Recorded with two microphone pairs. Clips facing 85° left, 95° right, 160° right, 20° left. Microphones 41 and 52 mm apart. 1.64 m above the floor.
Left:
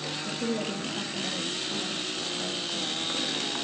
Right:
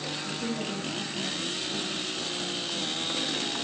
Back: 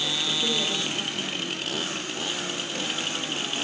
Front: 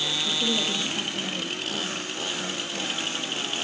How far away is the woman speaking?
About 3 m.